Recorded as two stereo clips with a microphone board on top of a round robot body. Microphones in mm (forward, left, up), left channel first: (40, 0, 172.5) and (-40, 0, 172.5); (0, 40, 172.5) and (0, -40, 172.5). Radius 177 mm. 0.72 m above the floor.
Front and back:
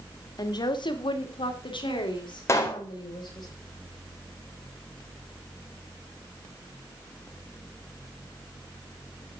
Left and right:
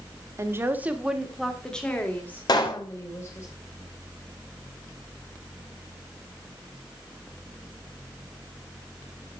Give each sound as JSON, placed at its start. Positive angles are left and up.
{"t": 0.4, "sound": "a woman speaking", "azimuth_deg": -35, "distance_m": 2.0}
{"t": 2.5, "sound": "a pop", "azimuth_deg": 55, "distance_m": 3.5}